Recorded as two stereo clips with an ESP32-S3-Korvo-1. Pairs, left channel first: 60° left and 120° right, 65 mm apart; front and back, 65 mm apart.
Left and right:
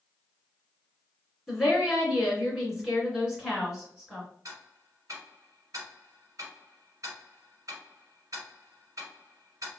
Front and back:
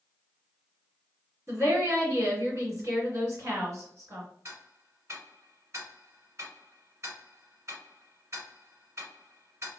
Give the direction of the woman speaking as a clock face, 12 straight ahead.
7 o'clock.